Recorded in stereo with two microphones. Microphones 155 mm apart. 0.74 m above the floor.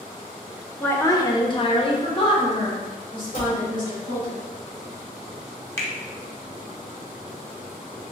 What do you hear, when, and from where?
0.8 s a woman speaking: 10° left (ahead or behind), 0.5 m; by 4.3 s 35° left (ahead or behind), 2 m
3.3 s a cupboard door: 35° left (ahead or behind), 1.8 m
5.8 s a finger snap: 20° left (ahead or behind), 0.7 m